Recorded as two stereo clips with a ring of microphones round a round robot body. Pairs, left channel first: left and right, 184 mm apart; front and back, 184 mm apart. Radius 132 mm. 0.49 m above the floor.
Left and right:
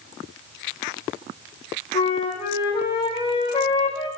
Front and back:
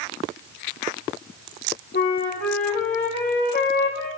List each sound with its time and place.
1.9 s a flute: 30° left, 7 m